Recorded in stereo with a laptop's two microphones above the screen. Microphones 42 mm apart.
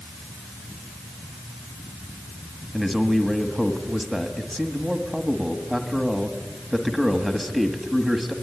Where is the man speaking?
5° right (ahead or behind), 1.6 m.